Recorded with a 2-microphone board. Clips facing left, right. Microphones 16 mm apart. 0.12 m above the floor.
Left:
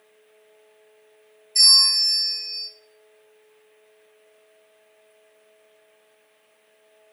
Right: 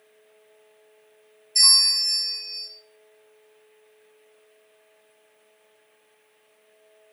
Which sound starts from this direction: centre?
A bell, at 1.6 s.